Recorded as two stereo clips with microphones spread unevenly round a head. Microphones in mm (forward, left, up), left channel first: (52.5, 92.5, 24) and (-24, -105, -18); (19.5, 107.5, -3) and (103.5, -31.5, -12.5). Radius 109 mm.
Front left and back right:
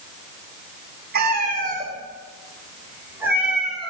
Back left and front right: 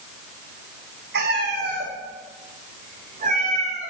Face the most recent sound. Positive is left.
turn(degrees=-15)